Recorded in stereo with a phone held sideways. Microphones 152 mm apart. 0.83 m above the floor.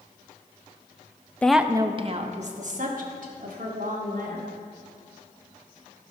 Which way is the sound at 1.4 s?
10° left (ahead or behind).